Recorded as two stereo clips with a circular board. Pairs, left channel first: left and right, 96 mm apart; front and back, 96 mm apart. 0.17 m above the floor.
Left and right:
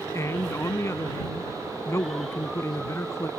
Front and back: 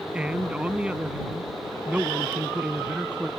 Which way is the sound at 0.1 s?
115° left.